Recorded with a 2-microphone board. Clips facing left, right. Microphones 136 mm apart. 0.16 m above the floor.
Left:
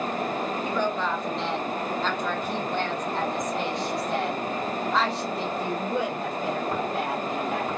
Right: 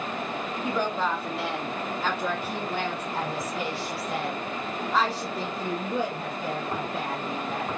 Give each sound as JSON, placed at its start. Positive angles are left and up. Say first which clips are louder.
{"t": 0.6, "sound": "a woman speaking", "louder": "right 2 dB", "side_deg": -10, "distance_m": 2.0}